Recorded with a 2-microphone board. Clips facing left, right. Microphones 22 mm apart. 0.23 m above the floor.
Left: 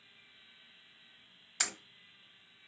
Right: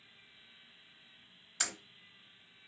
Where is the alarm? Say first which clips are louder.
Left 1 dB; 20° left (ahead or behind), 0.9 m.